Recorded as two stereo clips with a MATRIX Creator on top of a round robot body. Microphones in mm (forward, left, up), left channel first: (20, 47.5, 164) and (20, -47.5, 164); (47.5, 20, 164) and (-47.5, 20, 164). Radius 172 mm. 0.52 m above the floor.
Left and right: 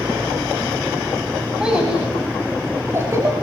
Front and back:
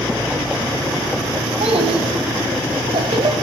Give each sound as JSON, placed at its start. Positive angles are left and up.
{"t": 1.6, "sound": "a child speaking", "azimuth_deg": -170, "distance_m": 4.5}